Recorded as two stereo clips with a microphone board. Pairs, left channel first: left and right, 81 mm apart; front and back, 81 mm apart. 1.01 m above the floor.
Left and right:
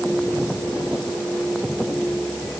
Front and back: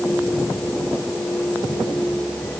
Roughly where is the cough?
No cough in this recording.